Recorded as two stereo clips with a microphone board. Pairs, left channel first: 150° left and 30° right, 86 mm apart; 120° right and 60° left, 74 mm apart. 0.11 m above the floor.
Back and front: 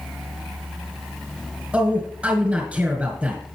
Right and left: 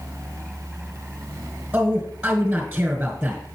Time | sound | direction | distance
1.7 | a man speaking | 20° left | 1.6 m